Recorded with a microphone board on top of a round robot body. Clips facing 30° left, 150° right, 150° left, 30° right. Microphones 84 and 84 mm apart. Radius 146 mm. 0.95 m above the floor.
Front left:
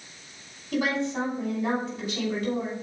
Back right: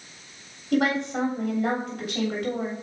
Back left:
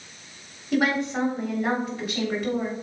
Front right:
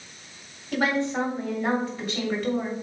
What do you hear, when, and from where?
0.7 s a woman speaking: 125° right, 3.5 m